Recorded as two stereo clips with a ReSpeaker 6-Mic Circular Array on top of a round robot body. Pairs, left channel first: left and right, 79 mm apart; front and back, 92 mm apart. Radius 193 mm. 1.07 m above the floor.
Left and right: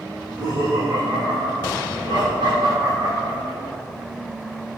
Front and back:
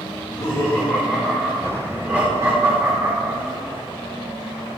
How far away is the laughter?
About 1.8 m.